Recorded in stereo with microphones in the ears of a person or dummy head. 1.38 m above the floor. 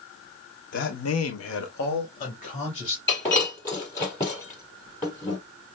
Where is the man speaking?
60° left (ahead or behind), 1.0 m; by 3.0 s 30° left (ahead or behind), 2 m.